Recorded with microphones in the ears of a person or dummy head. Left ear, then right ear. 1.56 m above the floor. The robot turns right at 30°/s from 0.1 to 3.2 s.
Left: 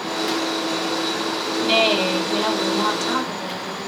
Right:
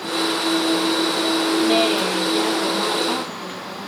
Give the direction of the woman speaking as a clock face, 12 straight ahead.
10 o'clock.